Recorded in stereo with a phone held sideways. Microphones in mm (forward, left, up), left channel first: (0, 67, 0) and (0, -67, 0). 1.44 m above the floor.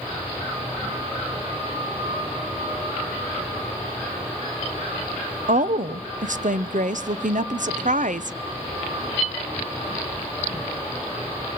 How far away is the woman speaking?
About 0.7 m.